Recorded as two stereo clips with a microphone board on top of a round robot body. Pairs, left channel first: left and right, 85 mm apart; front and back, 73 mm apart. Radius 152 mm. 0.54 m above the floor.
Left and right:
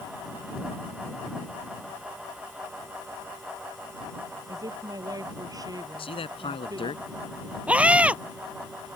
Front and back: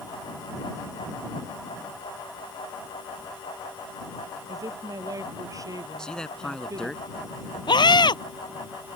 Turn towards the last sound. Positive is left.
turn(degrees=-15)